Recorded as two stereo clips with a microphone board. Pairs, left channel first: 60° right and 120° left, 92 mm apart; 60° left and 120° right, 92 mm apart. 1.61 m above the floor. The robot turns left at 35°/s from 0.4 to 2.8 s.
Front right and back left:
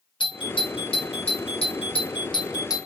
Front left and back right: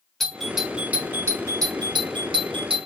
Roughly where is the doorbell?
Ahead right.